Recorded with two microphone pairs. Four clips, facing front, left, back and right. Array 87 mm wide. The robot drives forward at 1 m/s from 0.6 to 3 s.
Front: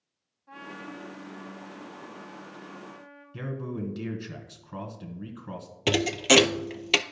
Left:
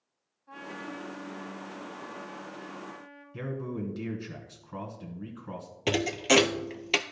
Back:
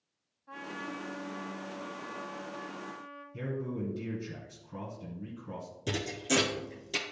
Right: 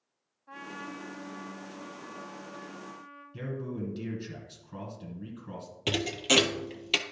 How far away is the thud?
About 0.5 m.